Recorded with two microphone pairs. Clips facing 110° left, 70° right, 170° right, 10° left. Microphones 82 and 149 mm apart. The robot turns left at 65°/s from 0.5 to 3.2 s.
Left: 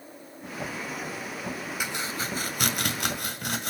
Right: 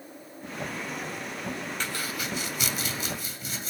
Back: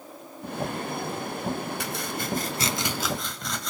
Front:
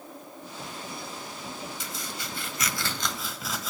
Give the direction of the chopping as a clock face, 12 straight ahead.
6 o'clock.